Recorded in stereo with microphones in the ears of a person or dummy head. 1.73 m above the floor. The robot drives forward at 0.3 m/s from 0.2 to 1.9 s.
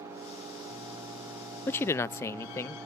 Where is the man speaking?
15° left (ahead or behind); by 2.8 s 20° left (ahead or behind).